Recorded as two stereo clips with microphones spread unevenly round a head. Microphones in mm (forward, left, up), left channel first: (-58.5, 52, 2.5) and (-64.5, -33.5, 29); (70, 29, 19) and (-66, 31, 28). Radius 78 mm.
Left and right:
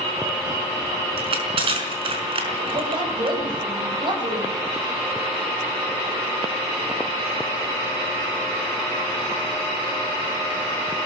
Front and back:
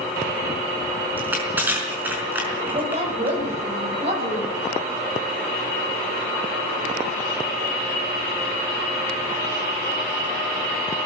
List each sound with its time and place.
1.2 s crushing: 100° right, 5 m
2.7 s a woman speaking: 125° right, 7 m